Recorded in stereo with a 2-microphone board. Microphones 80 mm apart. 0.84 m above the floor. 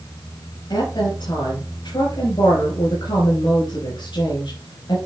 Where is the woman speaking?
75° left (ahead or behind), 4.5 m.